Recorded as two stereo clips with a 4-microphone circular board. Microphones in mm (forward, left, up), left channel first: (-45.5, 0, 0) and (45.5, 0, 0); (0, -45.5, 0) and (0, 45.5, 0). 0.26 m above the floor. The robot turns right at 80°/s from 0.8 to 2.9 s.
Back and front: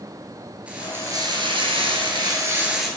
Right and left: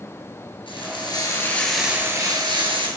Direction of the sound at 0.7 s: 75° right.